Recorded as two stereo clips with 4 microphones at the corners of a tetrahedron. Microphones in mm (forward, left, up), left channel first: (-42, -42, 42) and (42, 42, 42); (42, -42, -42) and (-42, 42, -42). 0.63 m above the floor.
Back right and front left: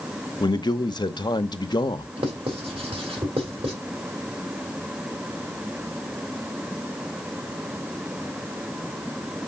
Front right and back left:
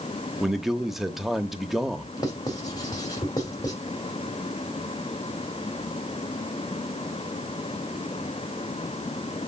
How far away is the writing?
About 2.5 m.